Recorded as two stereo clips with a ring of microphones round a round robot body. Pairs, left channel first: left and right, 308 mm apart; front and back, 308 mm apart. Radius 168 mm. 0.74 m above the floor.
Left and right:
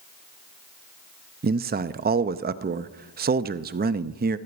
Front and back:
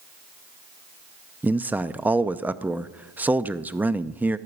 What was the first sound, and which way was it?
A man speaking, 100° right.